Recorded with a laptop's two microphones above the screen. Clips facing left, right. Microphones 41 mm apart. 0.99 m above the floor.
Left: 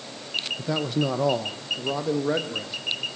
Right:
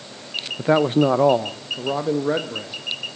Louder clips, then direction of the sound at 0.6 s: Right 11 dB; 45° right (ahead or behind).